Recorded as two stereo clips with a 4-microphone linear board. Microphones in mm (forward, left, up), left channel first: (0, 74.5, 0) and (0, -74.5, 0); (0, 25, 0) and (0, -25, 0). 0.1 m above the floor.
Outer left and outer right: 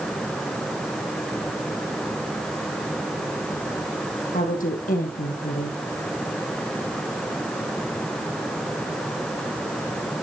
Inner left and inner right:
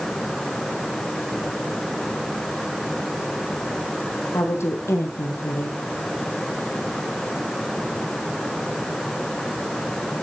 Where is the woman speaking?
65° left (ahead or behind), 3 m.